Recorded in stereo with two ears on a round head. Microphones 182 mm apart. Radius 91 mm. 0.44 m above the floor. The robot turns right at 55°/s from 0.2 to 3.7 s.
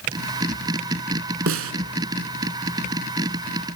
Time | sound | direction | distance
1.5 | a snare drum | 70° right (ahead or behind) | 0.8 m